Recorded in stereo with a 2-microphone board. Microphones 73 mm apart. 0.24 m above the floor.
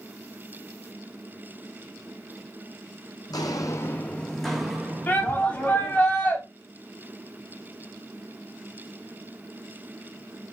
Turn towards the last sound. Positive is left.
turn(degrees=25)  # may be behind; listen again after turning